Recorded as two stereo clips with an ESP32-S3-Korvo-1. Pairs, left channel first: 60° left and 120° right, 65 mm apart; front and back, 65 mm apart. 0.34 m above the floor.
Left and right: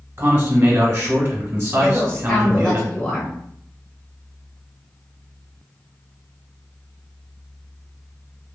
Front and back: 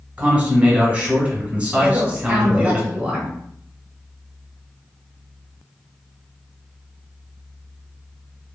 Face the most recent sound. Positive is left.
turn(degrees=130)